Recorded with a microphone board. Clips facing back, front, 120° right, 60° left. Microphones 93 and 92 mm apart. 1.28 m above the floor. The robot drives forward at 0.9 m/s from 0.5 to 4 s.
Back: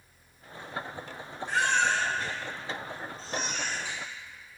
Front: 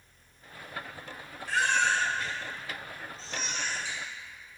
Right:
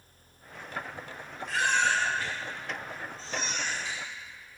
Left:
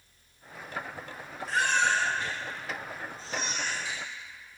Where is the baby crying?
110° left, 2 m; by 4.0 s 145° left, 3.5 m.